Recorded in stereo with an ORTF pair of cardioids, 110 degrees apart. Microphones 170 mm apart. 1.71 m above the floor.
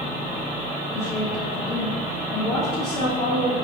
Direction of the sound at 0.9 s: 5° left.